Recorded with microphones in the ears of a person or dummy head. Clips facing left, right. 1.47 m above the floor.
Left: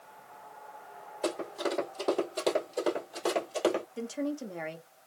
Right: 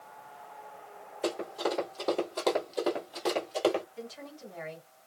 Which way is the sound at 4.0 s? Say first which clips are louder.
Left 10 dB; 50° left (ahead or behind).